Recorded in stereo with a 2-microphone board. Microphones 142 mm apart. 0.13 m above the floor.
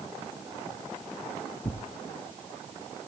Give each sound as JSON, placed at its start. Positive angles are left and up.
{"t": 1.6, "sound": "tearing paper", "side_deg": 30, "distance_m": 1.3}